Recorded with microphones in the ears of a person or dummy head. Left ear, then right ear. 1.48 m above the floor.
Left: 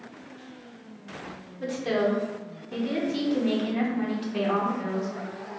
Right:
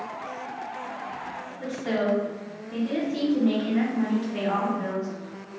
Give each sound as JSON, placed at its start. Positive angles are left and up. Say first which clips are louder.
{"t": 1.6, "sound": "a woman speaking", "louder": "left 2 dB", "side_deg": 10, "distance_m": 0.7}